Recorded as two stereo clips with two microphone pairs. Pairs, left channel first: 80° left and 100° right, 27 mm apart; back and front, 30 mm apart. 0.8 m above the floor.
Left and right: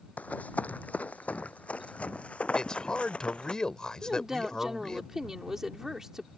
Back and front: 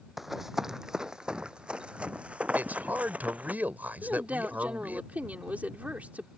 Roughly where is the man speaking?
Ahead.